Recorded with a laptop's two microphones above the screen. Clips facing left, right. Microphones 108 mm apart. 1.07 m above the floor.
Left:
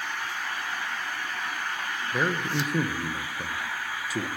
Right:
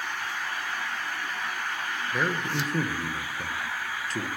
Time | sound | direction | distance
2.1 | a man speaking | 10° left (ahead or behind) | 0.7 m